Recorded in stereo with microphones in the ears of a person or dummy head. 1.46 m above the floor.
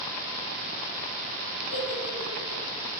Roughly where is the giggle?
Left.